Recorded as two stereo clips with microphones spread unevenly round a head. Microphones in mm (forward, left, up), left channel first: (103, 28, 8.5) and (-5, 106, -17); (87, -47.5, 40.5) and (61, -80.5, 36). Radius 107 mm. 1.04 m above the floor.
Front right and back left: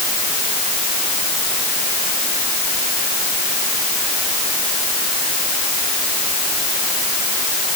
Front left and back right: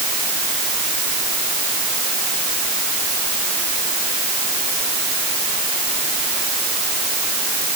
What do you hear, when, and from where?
Only background noise.